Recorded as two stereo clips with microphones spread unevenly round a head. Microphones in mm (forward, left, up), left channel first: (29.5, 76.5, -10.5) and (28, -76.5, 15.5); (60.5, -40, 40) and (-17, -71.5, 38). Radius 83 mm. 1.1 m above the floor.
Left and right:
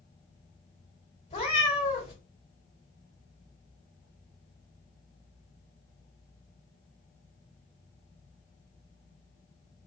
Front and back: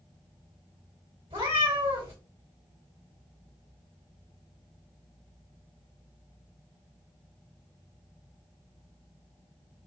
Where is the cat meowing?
150° left, 1.7 m.